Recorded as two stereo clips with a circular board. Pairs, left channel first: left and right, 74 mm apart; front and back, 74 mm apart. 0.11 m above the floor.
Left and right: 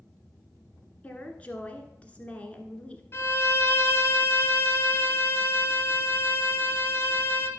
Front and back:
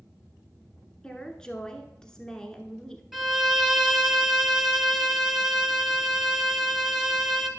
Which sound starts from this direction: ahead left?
A woman speaking, at 1.0 s.